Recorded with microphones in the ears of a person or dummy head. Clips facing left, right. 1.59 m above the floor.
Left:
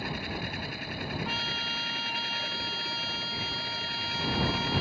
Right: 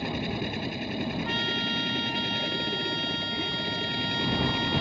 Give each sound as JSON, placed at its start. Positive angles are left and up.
{"t": 0.0, "sound": "a machine running", "side_deg": -25}
{"t": 1.2, "sound": "a trumpet", "side_deg": 5}